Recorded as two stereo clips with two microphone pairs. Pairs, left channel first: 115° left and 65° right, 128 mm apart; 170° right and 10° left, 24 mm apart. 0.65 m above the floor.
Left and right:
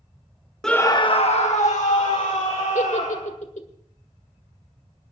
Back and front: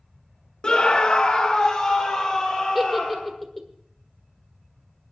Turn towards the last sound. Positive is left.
turn(degrees=100)